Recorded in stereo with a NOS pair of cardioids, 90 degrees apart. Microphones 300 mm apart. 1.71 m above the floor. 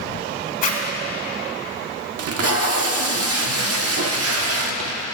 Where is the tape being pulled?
55° right, 1.2 m.